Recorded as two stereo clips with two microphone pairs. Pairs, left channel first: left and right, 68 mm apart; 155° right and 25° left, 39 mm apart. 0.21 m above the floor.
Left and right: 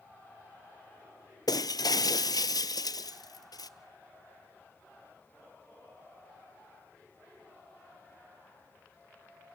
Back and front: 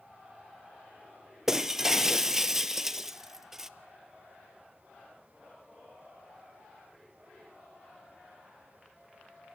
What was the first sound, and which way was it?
Breaking glass, 105° left.